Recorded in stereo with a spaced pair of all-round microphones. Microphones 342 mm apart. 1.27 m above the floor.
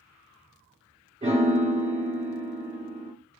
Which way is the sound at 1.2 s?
20° right (ahead or behind).